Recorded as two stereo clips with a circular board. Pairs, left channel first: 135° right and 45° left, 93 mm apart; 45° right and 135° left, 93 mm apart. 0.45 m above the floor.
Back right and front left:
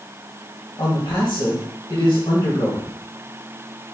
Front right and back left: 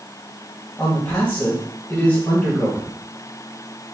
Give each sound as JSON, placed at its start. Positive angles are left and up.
{"t": 0.8, "sound": "a man speaking", "azimuth_deg": -110, "distance_m": 2.0}